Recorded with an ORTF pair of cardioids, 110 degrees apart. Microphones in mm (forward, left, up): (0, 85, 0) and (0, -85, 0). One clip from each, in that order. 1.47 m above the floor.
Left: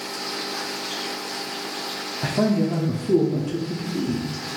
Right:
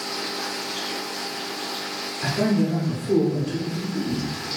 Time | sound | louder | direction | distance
2.2 | a man speaking | left 1 dB | 30° left | 0.6 m